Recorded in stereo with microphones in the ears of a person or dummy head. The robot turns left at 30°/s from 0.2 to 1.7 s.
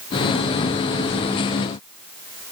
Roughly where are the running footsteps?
No running footsteps in this recording.